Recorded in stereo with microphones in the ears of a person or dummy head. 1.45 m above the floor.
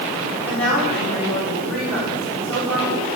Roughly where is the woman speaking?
Centre.